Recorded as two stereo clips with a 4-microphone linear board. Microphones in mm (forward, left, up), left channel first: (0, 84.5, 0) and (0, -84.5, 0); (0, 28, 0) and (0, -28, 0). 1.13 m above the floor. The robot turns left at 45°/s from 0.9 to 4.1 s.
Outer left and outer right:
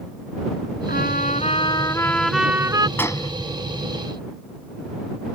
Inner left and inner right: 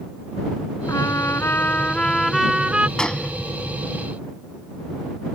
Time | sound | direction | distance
0.9 | a trumpet | 65° left | ?
3.0 | a gunshot | 10° left (ahead or behind) | ?